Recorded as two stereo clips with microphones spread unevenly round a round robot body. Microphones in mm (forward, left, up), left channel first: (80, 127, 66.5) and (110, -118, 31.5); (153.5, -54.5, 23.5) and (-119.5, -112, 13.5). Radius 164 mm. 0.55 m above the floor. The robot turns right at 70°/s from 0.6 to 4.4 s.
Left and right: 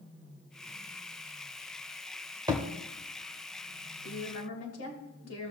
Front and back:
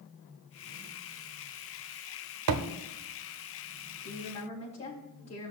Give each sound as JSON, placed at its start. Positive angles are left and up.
{"t": 2.5, "sound": "a thud", "azimuth_deg": -160, "distance_m": 1.1}
{"t": 4.0, "sound": "a woman speaking", "azimuth_deg": 55, "distance_m": 3.0}